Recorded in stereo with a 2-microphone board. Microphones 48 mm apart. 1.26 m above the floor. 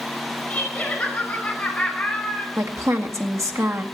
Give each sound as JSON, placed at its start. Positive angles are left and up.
{"t": 0.5, "sound": "laughter", "side_deg": 20, "distance_m": 9.0}
{"t": 2.6, "sound": "a woman speaking", "side_deg": -75, "distance_m": 1.9}